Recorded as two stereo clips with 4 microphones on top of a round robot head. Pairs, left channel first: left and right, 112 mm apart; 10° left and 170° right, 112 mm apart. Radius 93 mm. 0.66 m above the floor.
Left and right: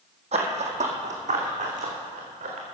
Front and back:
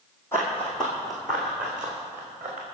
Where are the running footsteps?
65° right, 2 m; by 2.6 s 95° right, 4.5 m.